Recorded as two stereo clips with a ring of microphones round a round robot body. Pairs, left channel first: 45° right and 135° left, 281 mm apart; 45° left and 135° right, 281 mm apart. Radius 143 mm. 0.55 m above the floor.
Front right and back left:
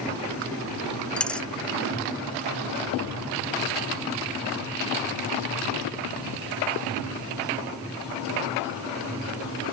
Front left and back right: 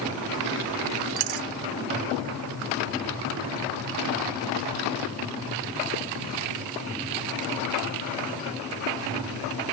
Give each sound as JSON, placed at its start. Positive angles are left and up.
{"t": 1.2, "sound": "a dropped coin", "azimuth_deg": -130}